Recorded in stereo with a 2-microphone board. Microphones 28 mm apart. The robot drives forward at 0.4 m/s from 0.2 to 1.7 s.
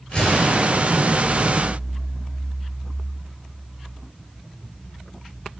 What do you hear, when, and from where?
0.1 s a gunshot: 30° left (ahead or behind), 4 m